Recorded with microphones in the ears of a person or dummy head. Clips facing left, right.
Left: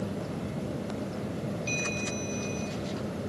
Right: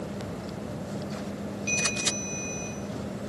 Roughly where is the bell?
Centre.